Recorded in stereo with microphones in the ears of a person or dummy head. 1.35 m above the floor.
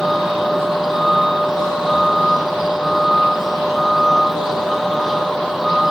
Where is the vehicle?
Centre (ahead or behind).